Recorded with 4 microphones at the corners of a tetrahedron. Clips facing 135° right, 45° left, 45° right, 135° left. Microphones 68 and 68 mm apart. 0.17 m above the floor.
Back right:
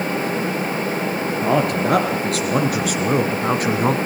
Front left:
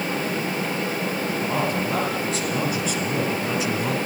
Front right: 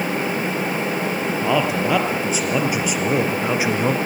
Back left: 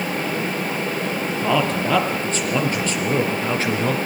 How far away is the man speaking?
About 4 m.